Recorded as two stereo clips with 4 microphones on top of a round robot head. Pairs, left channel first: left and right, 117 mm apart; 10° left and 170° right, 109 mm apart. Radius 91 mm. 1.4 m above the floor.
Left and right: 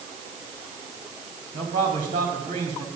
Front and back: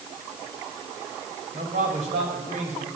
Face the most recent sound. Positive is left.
turn(degrees=-145)